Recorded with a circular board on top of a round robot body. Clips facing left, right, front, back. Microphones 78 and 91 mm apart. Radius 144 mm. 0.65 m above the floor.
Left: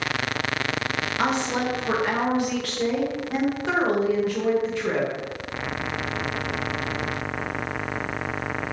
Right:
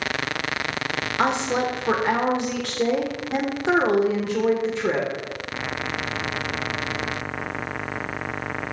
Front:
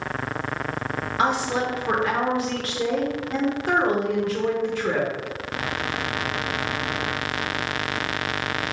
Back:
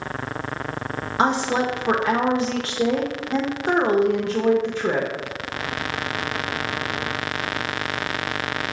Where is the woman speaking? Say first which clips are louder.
Right 3 dB, back 3 dB; 135° right, 0.7 m.